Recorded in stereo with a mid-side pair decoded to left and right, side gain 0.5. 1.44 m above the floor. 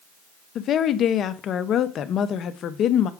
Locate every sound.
0.6 s a woman speaking: 55° left, 0.8 m